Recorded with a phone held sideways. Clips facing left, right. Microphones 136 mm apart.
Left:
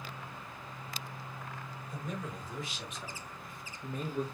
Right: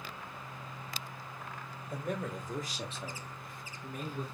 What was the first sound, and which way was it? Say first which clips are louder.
A man speaking: right 4 dB; 60° right (ahead or behind).